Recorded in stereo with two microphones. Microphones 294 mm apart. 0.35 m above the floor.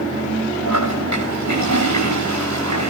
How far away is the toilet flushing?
About 9 m.